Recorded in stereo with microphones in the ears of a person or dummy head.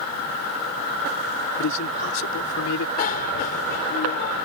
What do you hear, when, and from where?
1.6 s a man speaking: 75° left (ahead or behind); by 2.9 s 80° left
3.0 s a bicycle bell: 55° left (ahead or behind)